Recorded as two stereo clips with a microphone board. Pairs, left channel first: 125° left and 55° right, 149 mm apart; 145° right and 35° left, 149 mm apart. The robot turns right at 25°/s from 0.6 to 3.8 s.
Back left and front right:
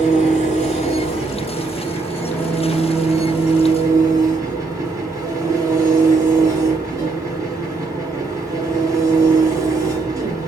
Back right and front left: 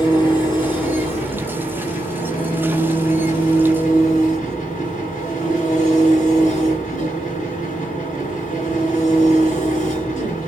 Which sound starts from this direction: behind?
An engine running, at 0.0 s.